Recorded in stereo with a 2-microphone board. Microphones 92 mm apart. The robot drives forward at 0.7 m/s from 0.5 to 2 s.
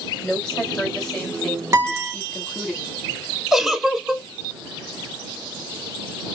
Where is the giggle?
Centre (ahead or behind), 0.7 m.